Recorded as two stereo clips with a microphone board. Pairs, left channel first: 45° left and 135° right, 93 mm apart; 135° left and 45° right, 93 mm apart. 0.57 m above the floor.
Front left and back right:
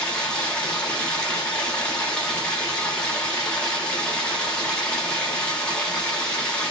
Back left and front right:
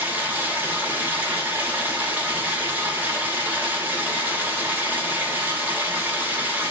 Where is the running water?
10° right, 0.9 m.